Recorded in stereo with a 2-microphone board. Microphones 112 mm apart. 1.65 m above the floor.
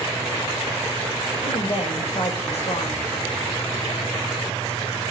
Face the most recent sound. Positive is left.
turn(degrees=70)  # may be behind; listen again after turning